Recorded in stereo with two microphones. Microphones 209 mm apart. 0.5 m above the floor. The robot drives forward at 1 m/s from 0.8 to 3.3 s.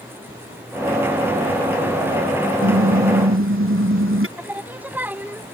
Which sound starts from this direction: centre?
Singing, at 4.4 s.